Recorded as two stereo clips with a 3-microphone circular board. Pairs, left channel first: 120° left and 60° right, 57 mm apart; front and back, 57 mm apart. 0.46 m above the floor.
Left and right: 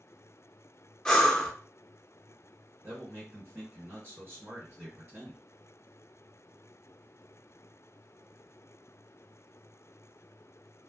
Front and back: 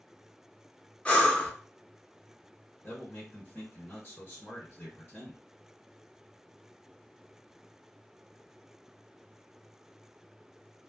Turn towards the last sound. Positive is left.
turn(degrees=-35)